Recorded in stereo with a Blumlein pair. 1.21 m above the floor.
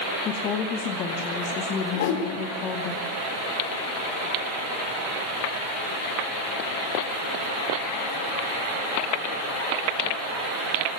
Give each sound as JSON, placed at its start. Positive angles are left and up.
{"t": 0.2, "sound": "a woman speaking", "azimuth_deg": 30, "distance_m": 2.0}
{"t": 1.9, "sound": "a whoosh", "azimuth_deg": 50, "distance_m": 4.5}